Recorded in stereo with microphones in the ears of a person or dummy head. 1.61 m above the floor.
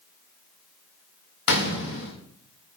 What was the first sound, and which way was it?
A gunshot, 60° left (ahead or behind).